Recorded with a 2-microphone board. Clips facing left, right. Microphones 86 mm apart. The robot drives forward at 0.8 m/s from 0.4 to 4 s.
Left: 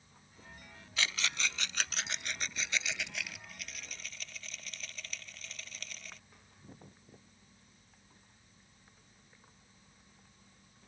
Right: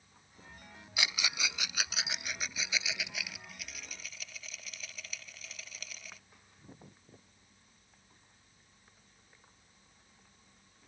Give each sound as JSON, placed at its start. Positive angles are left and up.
{"t": 1.0, "sound": "a rattle", "side_deg": -15}